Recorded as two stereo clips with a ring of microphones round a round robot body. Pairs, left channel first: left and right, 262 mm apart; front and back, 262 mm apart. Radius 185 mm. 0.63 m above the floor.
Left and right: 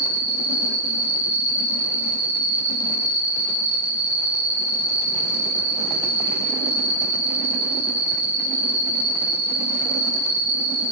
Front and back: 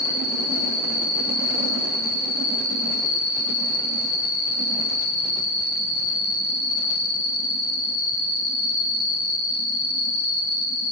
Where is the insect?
70° right, 1.6 m.